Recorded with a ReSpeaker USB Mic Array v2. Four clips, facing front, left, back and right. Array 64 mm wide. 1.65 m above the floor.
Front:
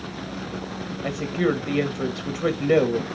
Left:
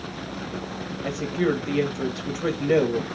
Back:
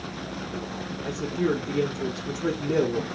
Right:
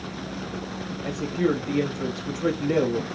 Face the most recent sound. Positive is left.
turn(degrees=25)